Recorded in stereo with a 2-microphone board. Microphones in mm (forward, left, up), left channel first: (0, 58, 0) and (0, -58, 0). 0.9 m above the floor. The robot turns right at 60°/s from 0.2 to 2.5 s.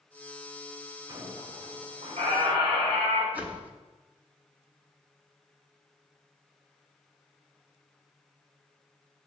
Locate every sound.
1.1 s a squeak: 130° right, 2.0 m; by 3.2 s 45° right, 2.0 m
3.3 s a whoosh: 15° right (ahead or behind), 0.8 m